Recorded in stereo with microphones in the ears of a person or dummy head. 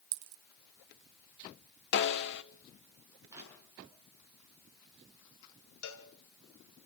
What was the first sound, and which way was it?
A dropped coin, 45° right (ahead or behind).